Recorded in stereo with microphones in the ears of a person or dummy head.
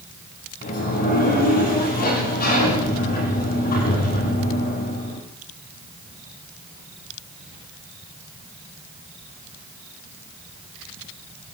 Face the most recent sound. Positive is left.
turn(degrees=45)  # may be behind; listen again after turning